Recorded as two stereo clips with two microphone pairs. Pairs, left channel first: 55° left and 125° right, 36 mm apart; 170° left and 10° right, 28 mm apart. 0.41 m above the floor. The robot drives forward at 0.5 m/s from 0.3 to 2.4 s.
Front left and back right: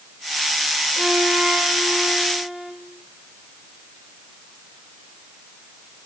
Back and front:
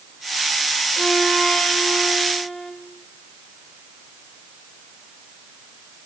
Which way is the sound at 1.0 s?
150° right.